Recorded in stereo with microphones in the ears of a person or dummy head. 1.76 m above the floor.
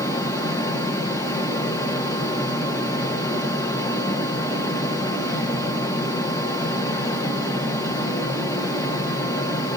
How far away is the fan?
About 1.3 m.